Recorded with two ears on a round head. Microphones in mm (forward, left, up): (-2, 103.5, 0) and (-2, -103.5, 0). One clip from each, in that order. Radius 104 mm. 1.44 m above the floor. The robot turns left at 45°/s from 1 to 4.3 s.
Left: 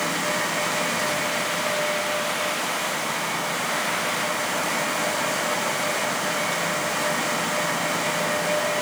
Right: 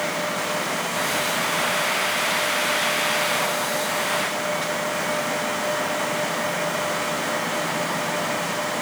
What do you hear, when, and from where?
Only background noise.